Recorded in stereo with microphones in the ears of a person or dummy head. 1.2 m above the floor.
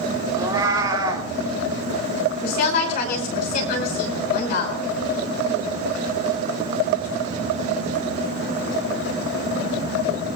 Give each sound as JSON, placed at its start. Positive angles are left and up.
{"t": 0.3, "sound": "a cat meowing", "side_deg": -25, "distance_m": 1.8}
{"t": 2.4, "sound": "a woman speaking", "side_deg": 55, "distance_m": 5.5}